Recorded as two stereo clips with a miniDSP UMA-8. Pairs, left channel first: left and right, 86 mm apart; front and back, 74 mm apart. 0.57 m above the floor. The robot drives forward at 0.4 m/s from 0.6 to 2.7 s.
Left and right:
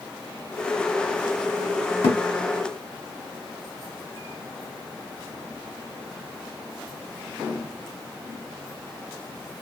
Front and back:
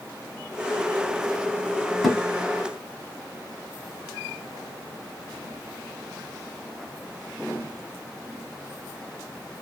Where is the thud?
85° left, 1.0 m; by 2.2 s 90° left, 1.0 m.